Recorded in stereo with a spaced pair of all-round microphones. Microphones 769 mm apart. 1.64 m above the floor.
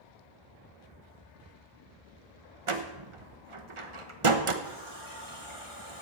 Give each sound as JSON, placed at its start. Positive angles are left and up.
{"t": 2.7, "sound": "a door slam", "side_deg": -40, "distance_m": 1.1}
{"t": 4.6, "sound": "a running tap", "side_deg": 40, "distance_m": 3.5}